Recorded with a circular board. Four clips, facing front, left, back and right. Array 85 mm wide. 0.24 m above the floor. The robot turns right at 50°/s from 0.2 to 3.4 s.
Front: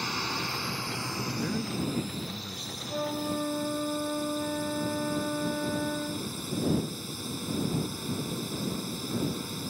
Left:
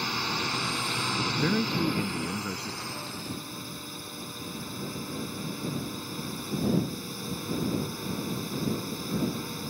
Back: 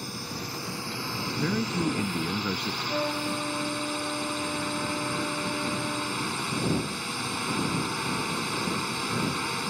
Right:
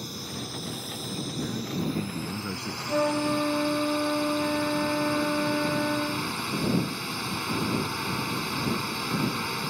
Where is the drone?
55° left; by 9.7 s 145° right.